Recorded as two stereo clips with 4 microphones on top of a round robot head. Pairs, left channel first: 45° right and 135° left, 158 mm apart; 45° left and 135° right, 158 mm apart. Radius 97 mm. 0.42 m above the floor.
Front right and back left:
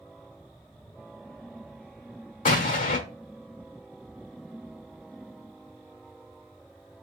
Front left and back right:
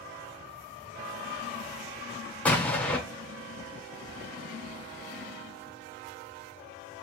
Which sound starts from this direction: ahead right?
An explosion, at 2.5 s.